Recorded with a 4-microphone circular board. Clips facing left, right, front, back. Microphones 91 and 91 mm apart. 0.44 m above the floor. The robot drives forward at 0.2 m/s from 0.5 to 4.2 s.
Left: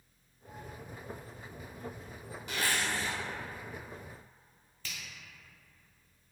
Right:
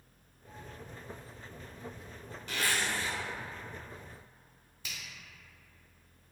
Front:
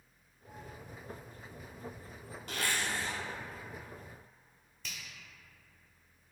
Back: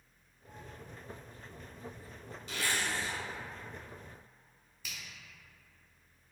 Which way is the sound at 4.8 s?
115° right.